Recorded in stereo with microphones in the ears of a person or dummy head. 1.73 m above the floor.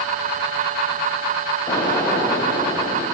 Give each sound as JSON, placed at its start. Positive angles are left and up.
{"t": 1.7, "sound": "an explosion", "side_deg": 25, "distance_m": 2.5}